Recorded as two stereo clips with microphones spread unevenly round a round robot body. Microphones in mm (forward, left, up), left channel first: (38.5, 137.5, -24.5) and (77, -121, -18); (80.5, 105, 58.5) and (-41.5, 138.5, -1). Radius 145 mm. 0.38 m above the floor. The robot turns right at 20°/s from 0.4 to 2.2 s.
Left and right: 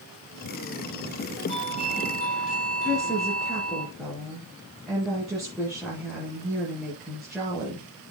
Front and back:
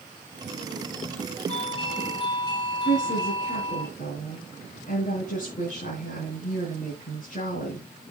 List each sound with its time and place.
1.5 s a doorbell: 30° left, 6 m; by 3.9 s 45° left, 6 m
2.9 s a woman speaking: 10° left, 6 m